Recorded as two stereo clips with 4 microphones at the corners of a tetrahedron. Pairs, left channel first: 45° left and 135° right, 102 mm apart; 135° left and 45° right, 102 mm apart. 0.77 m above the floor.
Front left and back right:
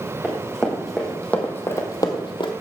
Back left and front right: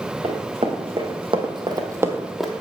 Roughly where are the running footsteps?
Ahead right.